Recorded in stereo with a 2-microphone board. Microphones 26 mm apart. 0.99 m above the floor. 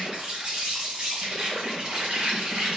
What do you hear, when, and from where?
0.0 s an insect: 50° right (ahead or behind), 3 m